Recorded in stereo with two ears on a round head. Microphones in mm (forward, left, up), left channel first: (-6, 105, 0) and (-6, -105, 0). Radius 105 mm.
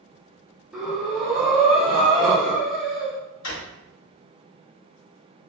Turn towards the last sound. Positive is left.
turn(degrees=80)